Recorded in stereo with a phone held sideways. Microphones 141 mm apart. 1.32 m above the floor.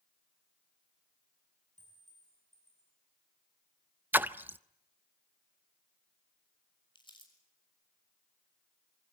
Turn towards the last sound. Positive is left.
turn(degrees=35)  # may be behind; listen again after turning